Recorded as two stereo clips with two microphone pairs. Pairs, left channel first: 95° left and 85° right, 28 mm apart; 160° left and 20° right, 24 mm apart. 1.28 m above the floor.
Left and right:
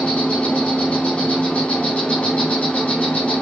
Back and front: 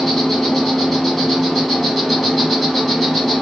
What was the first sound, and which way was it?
An insect, 65° left.